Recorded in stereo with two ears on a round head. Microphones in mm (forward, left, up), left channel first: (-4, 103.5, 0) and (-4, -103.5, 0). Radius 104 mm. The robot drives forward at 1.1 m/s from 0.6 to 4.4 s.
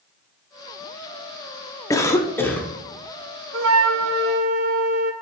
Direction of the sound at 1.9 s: 15° left (ahead or behind).